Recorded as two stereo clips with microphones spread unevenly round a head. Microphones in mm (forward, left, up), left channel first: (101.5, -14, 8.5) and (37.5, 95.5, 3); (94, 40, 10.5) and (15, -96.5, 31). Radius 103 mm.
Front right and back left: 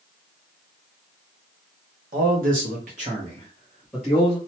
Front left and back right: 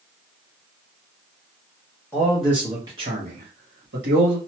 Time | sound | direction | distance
2.1 | a man speaking | 140° left | 1.1 m